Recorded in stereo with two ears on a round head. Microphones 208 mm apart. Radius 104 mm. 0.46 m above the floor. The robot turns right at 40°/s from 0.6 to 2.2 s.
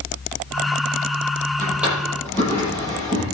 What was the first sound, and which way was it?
A drawer, 15° right (ahead or behind).